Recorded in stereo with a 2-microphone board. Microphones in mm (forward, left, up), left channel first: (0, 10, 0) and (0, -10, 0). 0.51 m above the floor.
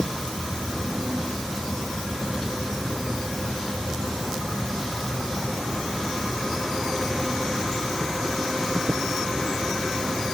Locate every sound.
Only background noise.